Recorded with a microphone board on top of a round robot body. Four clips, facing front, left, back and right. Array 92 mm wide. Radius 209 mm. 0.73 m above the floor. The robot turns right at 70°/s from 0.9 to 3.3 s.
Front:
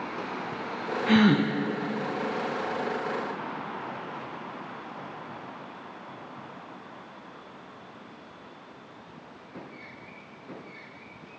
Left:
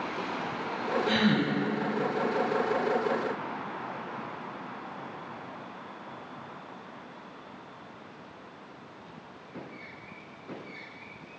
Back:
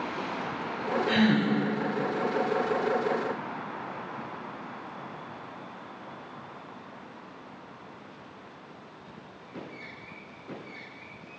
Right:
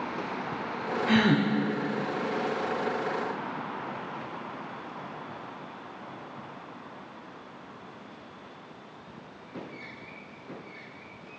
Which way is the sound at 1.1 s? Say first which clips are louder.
Right 4 dB, front 4 dB; 35° right.